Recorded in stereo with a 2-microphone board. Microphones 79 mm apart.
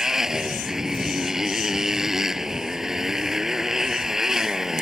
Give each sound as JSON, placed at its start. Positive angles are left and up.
{"t": 0.0, "sound": "a motorcycle", "side_deg": -5}